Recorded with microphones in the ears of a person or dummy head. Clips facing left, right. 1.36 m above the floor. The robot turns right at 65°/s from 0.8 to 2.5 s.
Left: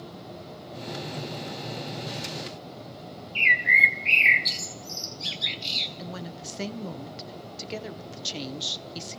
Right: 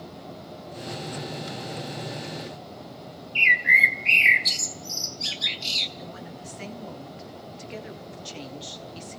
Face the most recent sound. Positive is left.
turn(degrees=55)  # may be behind; listen again after turning